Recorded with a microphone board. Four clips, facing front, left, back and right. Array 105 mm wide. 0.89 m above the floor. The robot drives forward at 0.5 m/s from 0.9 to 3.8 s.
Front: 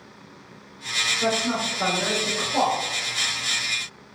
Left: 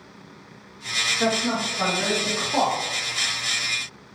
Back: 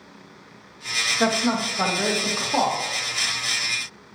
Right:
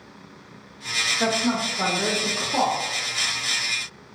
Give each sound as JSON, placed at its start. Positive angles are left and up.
{"t": 1.2, "sound": "a woman speaking", "azimuth_deg": -175, "distance_m": 0.7}